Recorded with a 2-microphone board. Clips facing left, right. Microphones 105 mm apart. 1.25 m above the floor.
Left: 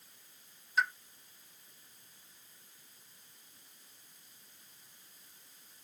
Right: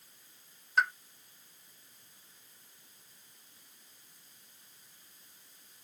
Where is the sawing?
No sawing in this recording.